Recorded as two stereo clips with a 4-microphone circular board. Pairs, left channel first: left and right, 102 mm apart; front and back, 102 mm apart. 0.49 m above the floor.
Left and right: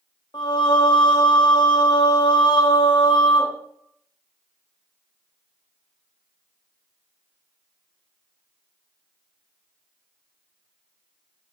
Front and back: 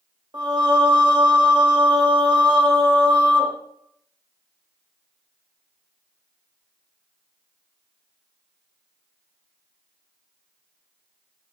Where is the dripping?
No dripping in this recording.